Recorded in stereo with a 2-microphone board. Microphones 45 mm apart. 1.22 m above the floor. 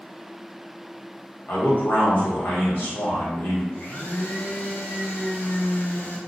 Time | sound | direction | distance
1.5 | a man speaking | 55° left (ahead or behind) | 1.4 m
3.7 | a blender | 45° left (ahead or behind) | 0.6 m